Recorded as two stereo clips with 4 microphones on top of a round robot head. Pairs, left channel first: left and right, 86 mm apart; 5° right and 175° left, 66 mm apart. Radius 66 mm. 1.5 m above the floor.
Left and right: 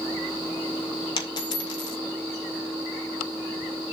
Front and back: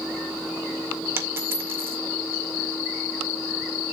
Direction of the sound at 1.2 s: 125° left.